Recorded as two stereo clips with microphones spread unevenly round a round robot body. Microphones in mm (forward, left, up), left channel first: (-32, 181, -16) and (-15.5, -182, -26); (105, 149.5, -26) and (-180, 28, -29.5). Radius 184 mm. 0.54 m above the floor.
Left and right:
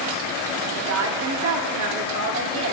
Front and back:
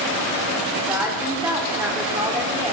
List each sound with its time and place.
0.8 s a woman speaking: 80° right, 1.0 m